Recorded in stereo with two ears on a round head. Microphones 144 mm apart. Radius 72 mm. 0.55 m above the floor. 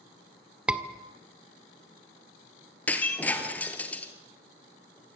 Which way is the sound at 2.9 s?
10° left (ahead or behind).